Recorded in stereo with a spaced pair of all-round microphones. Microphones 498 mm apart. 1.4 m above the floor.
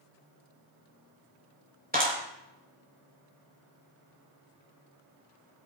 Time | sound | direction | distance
1.9 | a clap | 15° right (ahead or behind) | 4.5 m